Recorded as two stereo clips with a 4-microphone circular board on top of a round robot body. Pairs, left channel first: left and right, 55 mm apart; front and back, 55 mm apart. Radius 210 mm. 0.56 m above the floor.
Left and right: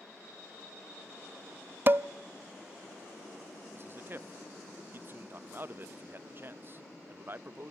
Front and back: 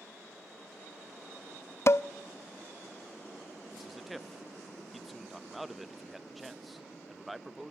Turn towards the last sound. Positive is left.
turn(degrees=-90)